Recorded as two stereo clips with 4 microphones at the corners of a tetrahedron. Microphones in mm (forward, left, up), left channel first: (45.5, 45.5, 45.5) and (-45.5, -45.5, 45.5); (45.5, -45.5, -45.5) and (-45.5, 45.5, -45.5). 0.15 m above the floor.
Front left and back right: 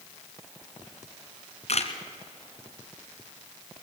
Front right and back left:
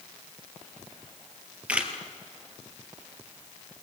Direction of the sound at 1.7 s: 55° left.